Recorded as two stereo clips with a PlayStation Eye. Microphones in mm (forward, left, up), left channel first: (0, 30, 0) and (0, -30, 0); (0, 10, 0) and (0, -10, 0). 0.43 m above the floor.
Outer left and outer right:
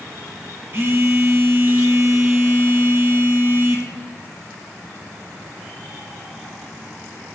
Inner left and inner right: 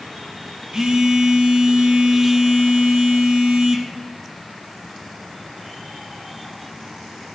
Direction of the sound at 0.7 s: 45° right (ahead or behind).